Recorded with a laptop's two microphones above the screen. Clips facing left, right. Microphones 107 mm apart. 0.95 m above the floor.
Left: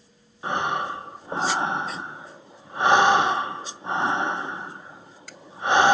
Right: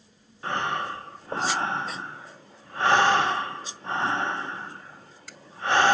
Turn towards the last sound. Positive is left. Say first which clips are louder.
# left 3 dB
turn(degrees=15)  # may be behind; listen again after turning